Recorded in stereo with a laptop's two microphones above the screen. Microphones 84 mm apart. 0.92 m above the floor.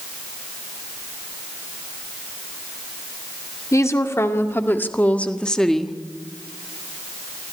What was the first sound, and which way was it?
A woman speaking, 35° left (ahead or behind).